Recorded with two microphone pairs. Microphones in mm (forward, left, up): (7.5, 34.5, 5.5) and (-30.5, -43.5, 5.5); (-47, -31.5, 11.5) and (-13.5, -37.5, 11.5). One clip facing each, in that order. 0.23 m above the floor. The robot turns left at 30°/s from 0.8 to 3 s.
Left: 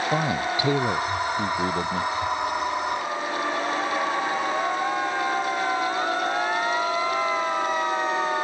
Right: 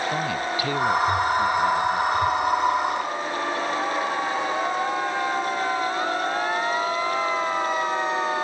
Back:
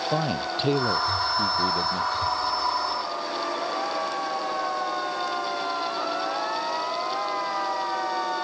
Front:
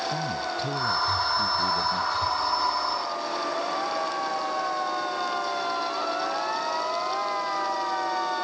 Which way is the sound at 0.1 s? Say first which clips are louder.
Left 2 dB, back 3 dB; 135° left.